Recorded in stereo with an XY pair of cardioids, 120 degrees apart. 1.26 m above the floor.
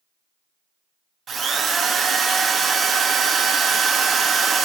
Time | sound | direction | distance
1.3 | a drill | 40° right | 1.9 m